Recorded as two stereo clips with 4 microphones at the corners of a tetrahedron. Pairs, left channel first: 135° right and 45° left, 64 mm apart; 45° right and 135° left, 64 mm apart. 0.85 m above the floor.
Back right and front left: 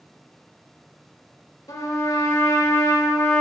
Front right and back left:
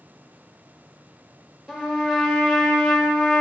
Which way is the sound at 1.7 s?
140° right.